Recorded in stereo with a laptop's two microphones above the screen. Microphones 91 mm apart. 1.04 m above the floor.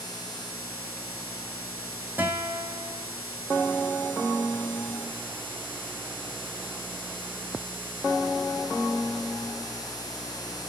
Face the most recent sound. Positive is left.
turn(degrees=-20)  # may be behind; listen again after turning